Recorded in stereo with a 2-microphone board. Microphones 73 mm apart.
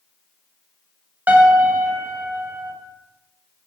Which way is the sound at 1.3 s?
25° right (ahead or behind).